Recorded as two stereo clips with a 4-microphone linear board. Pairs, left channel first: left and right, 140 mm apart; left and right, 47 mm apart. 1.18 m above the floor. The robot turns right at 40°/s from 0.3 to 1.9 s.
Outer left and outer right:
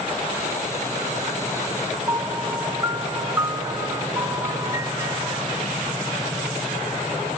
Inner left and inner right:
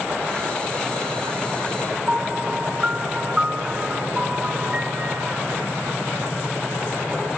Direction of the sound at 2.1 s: 25° right (ahead or behind).